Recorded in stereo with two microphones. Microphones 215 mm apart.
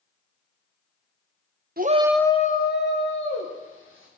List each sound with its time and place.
1.8 s a shout: 45° right (ahead or behind), 0.7 m; by 4.1 s 70° left (ahead or behind), 2.5 m